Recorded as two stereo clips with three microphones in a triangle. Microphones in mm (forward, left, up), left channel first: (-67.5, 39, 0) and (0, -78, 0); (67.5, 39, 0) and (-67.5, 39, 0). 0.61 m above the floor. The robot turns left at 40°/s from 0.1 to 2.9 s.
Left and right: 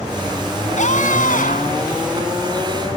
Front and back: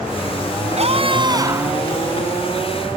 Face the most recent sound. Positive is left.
turn(degrees=60)